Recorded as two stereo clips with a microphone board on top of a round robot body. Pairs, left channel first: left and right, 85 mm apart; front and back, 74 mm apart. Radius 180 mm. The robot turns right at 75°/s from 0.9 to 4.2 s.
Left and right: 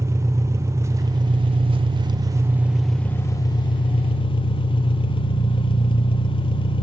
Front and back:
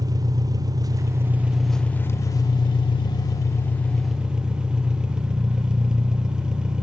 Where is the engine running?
145° right, 0.8 m; by 6.8 s 100° left, 0.8 m.